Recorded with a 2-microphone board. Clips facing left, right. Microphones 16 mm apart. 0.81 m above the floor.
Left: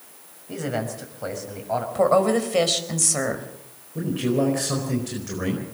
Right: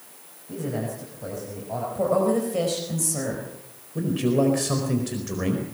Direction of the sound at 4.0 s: 10° right (ahead or behind).